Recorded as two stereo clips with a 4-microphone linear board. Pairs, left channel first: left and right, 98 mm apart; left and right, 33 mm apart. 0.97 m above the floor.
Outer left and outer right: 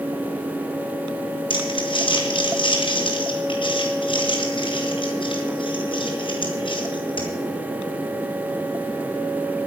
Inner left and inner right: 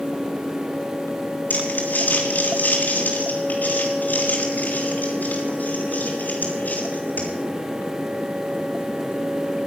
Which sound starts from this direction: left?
Crumpling, at 1.5 s.